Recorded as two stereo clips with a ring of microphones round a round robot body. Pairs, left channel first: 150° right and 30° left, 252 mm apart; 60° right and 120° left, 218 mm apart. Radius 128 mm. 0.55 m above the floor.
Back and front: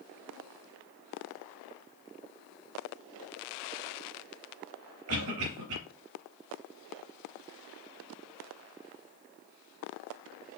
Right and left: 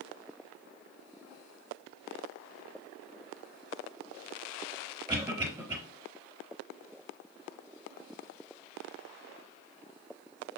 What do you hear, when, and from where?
5.1 s a cough: 40° left, 3 m